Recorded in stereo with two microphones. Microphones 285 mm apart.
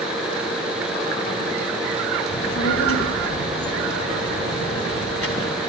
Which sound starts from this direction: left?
A child speaking, at 2.3 s.